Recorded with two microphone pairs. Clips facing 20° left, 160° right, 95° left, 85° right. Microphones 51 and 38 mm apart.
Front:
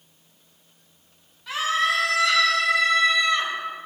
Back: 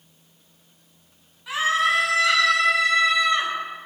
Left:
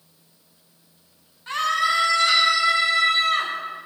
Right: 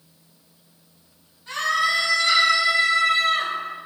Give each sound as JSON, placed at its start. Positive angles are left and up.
{"t": 1.5, "sound": "a scream", "azimuth_deg": 120, "distance_m": 2.0}